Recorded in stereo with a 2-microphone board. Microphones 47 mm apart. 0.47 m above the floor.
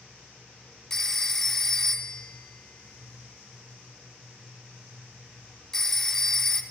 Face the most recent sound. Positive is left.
turn(degrees=10)  # may be behind; listen again after turning